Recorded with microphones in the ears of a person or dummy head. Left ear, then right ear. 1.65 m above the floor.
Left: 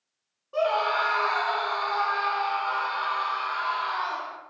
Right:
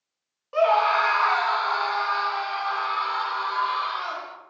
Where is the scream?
55° right (ahead or behind), 0.8 m; by 4.4 s 40° right (ahead or behind), 2 m.